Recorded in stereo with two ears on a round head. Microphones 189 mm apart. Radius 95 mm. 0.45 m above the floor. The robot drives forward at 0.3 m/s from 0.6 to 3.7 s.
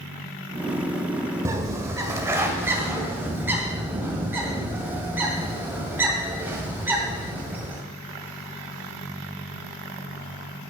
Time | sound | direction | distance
1.4 | a bird | 15° right (ahead or behind) | 1.2 m